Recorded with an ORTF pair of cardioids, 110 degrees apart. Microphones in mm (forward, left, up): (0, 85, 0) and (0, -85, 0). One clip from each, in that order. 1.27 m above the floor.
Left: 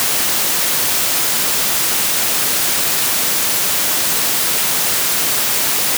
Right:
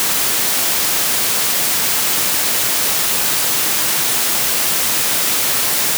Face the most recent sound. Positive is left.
No sound to turn to.